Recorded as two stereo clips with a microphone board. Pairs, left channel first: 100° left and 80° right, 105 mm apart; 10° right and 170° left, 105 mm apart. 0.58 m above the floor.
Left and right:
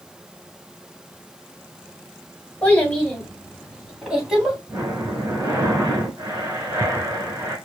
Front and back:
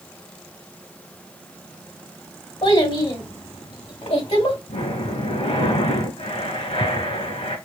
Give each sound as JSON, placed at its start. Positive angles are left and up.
{"t": 2.6, "sound": "a child speaking", "azimuth_deg": 25, "distance_m": 2.5}
{"t": 4.7, "sound": "breathing", "azimuth_deg": -15, "distance_m": 2.5}